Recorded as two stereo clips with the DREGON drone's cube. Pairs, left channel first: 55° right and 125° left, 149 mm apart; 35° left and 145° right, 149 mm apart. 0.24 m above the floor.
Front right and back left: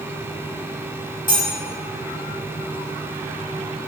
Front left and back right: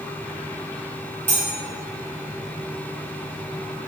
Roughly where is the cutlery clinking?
Right.